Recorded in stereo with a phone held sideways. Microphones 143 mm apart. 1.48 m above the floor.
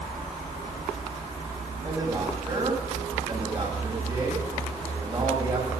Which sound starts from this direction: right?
A man speaking, at 1.8 s.